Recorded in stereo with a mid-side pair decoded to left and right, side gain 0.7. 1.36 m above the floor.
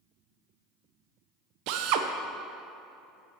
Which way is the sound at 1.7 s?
70° right.